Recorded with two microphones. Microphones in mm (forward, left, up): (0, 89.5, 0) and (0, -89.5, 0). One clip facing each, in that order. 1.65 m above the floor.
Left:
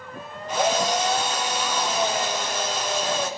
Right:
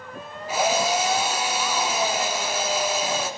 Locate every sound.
0.5 s a drill: 5° right (ahead or behind), 5.5 m